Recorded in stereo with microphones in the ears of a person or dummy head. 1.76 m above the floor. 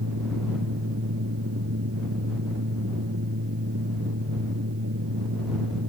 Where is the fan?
85° right.